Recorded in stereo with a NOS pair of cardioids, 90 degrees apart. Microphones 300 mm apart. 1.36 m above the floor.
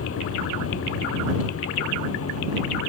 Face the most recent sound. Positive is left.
turn(degrees=45)